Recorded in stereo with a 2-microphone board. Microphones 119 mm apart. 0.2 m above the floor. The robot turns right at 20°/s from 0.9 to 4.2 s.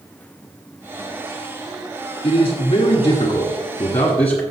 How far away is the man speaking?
About 1.8 m.